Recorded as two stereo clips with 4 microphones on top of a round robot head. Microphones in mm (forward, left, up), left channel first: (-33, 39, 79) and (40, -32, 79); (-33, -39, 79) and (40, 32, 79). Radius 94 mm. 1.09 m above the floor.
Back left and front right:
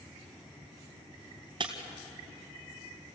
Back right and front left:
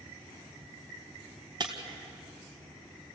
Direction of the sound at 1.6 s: 5° right.